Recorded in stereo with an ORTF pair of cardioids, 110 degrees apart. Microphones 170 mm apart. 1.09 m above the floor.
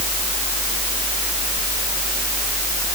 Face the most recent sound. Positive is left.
No sound to turn to.